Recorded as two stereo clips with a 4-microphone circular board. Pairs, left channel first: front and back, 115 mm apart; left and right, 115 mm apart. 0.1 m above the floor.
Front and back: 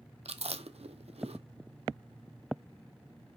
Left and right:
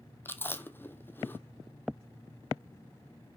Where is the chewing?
160° left, 0.7 m.